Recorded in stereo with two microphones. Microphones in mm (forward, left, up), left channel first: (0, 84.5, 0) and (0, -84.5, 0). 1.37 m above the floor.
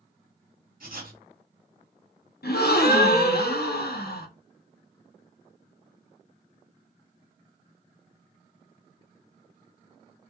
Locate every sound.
0.8 s writing: 60° right (ahead or behind), 1.1 m
2.4 s a gasp: 70° left (ahead or behind), 0.6 m